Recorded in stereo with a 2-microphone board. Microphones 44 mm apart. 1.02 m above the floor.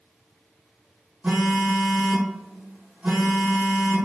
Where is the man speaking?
I don't hear a man speaking.